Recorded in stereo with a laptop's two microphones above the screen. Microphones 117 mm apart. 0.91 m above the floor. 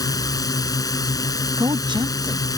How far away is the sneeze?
I don't hear a sneeze.